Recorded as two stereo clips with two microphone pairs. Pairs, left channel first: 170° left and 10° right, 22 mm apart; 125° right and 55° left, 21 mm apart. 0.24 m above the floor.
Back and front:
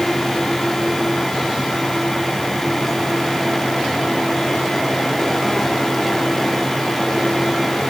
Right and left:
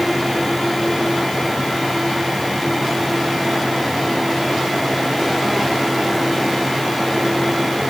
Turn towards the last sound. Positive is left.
No sound to turn to.